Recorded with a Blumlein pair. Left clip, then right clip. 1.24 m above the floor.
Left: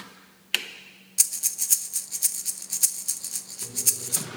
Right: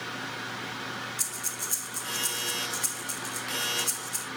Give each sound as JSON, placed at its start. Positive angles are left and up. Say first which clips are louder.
{"t": 1.2, "sound": "breathing", "louder": "left 5 dB", "azimuth_deg": 45, "distance_m": 1.7}